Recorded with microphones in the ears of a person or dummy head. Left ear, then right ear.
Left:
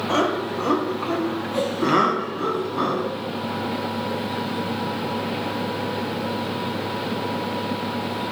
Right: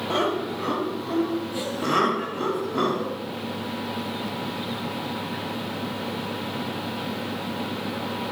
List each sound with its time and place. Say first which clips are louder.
0.1 s laughter: left 3 dB; 80° left, 1.4 m; by 3.1 s 40° right (ahead or behind), 1.0 m